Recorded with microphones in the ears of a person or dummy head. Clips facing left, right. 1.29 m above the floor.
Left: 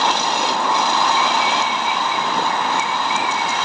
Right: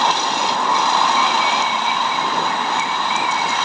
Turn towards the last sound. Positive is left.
No sound to turn to.